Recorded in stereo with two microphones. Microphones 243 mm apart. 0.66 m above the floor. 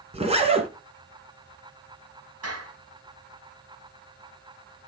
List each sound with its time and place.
0.1 s a zipper: 25° right (ahead or behind), 2 m
2.4 s a clap: 75° right (ahead or behind), 4 m